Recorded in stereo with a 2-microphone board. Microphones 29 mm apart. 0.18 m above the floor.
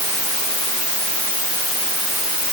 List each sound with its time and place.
Only background noise.